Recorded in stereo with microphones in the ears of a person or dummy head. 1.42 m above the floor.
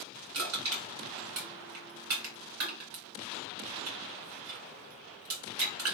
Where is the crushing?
75° right (ahead or behind), 2 m.